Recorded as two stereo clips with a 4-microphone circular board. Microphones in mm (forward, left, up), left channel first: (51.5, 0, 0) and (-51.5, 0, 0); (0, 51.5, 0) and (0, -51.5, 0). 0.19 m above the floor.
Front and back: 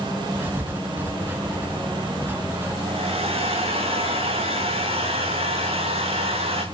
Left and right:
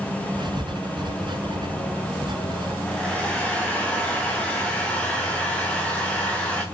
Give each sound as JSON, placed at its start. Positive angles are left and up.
{"t": 0.3, "sound": "writing", "azimuth_deg": -115, "distance_m": 2.5}
{"t": 2.9, "sound": "a hair dryer", "azimuth_deg": 170, "distance_m": 5.0}